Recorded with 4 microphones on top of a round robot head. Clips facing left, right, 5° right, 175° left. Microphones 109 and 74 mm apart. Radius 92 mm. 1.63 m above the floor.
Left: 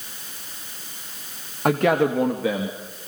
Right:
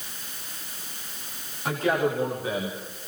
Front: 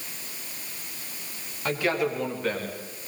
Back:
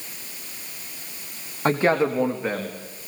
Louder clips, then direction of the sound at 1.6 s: Left 6 dB, back 6 dB; 125° left.